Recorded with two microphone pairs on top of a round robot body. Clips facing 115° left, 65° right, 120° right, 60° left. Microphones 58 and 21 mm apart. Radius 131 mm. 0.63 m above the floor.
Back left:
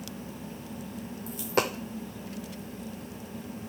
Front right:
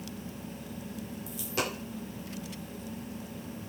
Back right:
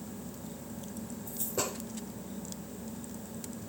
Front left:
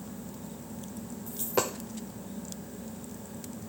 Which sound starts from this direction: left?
A dropped coin, at 1.3 s.